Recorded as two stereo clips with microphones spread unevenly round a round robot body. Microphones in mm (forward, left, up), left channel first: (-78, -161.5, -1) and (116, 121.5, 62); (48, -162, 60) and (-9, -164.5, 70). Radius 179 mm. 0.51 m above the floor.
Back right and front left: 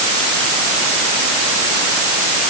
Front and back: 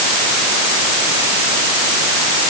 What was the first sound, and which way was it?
Only background noise.